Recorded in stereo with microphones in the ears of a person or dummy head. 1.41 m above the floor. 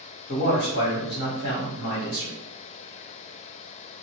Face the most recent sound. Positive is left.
turn(degrees=55)  # may be behind; listen again after turning